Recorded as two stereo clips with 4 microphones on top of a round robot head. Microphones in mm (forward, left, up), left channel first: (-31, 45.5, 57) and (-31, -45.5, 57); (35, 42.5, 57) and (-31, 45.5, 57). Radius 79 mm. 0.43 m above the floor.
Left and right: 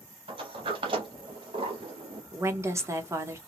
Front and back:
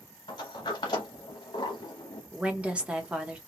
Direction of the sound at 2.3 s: 125° right.